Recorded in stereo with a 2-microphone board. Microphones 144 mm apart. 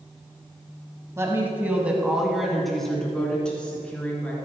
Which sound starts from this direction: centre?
A woman speaking, at 1.2 s.